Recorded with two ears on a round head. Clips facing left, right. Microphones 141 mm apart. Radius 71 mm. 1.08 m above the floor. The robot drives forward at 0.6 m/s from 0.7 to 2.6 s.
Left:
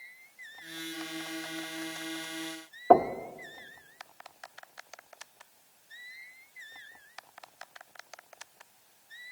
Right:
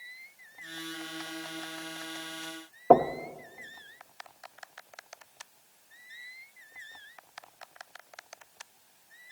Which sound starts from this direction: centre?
Knocking, at 2.9 s.